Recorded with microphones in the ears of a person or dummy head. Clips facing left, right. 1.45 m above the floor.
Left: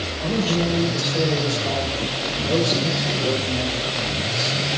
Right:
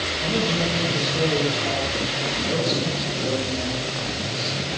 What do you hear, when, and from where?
0.2 s a man speaking: 25° left (ahead or behind), 5 m; by 4.6 s 55° left (ahead or behind), 4 m